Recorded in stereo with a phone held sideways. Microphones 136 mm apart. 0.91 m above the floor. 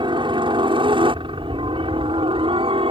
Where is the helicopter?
40° right (ahead or behind); by 2.9 s 45° right (ahead or behind).